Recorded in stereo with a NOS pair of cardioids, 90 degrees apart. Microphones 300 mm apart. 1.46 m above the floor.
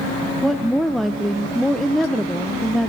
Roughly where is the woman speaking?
Ahead.